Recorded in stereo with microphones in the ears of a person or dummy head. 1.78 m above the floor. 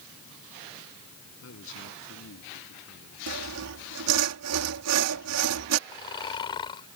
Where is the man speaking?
70° left (ahead or behind).